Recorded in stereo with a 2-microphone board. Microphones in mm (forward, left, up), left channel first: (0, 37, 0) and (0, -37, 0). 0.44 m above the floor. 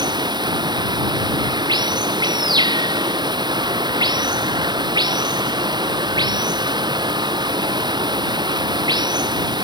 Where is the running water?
75° right (ahead or behind).